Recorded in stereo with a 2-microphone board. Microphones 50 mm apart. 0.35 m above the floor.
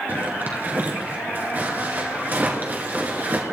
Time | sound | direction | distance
0.1 | a zipper | 40° right (ahead or behind) | 2 m